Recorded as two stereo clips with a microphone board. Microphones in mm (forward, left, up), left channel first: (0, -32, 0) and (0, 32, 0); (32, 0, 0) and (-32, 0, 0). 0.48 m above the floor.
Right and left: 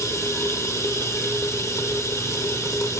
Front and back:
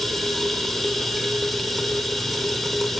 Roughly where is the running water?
Right.